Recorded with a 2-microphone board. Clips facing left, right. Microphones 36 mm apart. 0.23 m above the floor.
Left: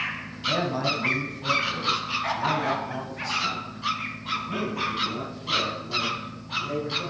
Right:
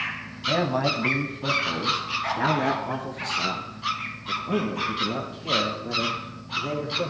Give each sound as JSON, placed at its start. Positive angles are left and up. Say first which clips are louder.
{"t": 0.5, "sound": "a man speaking", "louder": "right 2 dB", "side_deg": -15, "distance_m": 1.8}